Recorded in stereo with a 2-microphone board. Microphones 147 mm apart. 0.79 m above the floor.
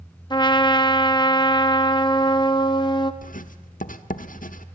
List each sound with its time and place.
0.3 s a trumpet: 30° left (ahead or behind), 1.4 m
3.2 s writing: 65° left (ahead or behind), 1.2 m